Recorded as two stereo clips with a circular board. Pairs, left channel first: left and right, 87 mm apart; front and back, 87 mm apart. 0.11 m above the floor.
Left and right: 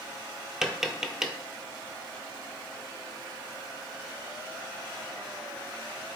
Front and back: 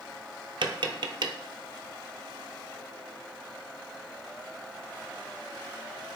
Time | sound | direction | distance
0.6 | tapping | 175° right | 0.6 m